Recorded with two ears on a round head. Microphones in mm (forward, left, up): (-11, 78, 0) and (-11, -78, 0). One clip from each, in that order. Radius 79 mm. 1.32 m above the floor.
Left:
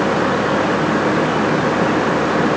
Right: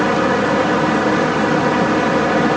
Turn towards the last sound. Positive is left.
No sound to turn to.